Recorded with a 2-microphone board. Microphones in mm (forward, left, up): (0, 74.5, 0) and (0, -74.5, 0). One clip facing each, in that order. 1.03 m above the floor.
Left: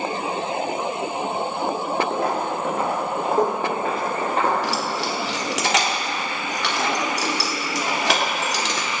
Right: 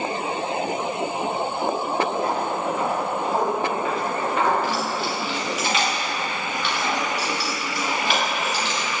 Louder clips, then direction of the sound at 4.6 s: Even; 85° left.